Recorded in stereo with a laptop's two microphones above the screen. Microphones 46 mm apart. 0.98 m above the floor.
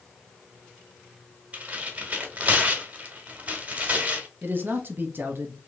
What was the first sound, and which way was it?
Tearing paper, 30° right (ahead or behind).